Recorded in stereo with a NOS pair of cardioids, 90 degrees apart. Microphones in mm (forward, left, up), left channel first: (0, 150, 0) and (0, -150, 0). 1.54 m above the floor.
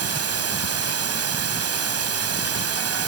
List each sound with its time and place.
0.0 s running water: 50° right